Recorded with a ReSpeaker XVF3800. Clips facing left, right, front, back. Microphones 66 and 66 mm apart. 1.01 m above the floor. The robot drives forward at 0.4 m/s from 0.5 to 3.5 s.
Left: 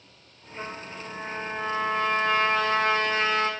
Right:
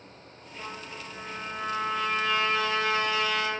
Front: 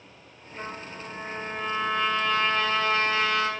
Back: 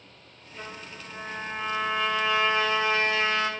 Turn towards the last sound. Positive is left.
turn(degrees=125)